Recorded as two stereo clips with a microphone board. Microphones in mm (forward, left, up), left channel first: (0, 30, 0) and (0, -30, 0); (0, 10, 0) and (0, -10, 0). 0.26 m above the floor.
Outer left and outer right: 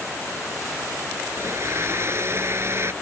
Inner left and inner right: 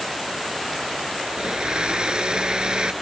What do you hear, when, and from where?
1.3 s a blender: 45° right (ahead or behind)